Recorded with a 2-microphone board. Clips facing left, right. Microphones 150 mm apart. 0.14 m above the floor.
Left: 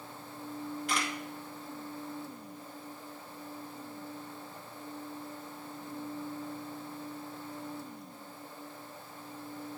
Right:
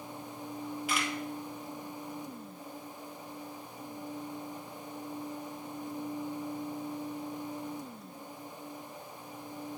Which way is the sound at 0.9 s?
5° right (ahead or behind).